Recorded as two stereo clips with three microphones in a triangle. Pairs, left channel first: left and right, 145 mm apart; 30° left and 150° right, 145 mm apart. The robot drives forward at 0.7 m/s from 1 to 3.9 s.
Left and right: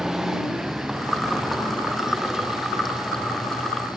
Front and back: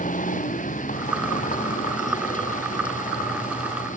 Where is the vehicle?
5° right.